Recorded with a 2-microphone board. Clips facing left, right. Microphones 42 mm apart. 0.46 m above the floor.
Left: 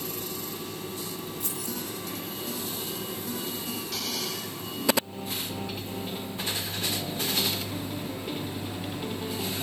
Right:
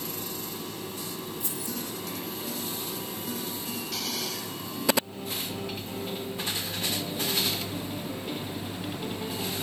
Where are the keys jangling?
65° left (ahead or behind), 2 m.